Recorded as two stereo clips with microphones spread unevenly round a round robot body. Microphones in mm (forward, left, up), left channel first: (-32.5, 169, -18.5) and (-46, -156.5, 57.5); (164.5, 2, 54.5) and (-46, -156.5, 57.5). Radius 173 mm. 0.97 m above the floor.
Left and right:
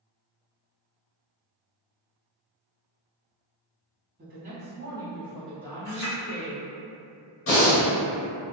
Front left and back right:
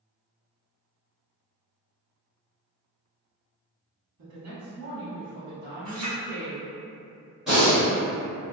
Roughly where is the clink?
Behind.